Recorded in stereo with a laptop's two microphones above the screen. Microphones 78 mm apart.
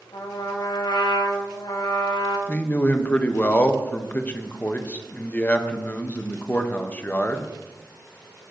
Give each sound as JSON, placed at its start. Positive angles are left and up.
{"t": 0.1, "sound": "a trumpet", "side_deg": 75, "distance_m": 2.5}
{"t": 2.5, "sound": "a man speaking", "side_deg": 20, "distance_m": 0.8}